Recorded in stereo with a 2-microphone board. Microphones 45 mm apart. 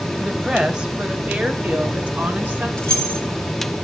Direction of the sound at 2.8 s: 15° left (ahead or behind).